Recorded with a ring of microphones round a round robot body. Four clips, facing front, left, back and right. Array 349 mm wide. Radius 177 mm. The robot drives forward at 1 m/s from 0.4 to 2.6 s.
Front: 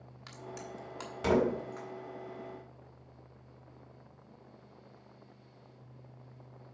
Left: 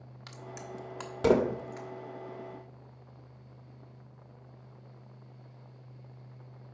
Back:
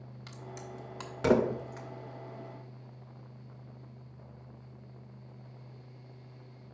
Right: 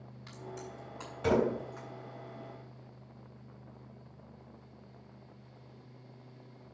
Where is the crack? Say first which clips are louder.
Left 1 dB, front 1 dB; 75° left, 1.4 m; by 1.9 s 130° left, 1.7 m.